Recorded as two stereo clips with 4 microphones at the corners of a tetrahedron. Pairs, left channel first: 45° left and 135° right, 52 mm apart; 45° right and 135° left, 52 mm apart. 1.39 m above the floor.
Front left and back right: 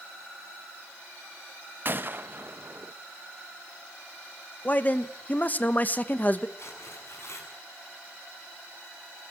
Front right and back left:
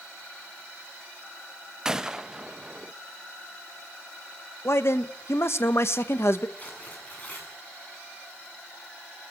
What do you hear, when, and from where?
1.9 s a gunshot: 155° right, 0.7 m
4.7 s a man speaking: 10° right, 1.2 m
6.6 s tearing paper: 15° left, 7.5 m